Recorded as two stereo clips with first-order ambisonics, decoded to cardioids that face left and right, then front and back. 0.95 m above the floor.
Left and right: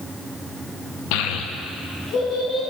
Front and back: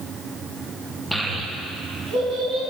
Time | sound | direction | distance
1.1 | a child speaking | 95° left | 0.6 m